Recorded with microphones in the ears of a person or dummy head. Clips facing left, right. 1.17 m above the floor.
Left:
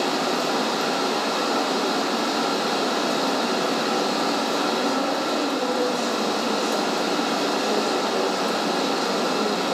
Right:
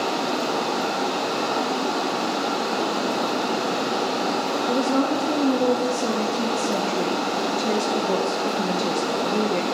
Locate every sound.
0.0 s running water: 15° left (ahead or behind), 1.8 m
4.7 s a woman speaking: 70° right (ahead or behind), 0.9 m